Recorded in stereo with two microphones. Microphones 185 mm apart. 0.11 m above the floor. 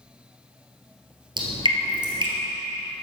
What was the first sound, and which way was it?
Dripping, 25° right (ahead or behind).